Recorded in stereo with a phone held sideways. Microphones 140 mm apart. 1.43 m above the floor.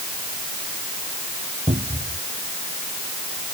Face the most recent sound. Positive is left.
turn(degrees=-55)  # may be behind; listen again after turning